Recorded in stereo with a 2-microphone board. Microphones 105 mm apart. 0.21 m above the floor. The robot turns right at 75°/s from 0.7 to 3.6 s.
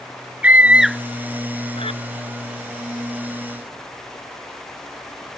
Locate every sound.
0.4 s a scream: 15° right (ahead or behind); by 2.0 s 65° left (ahead or behind)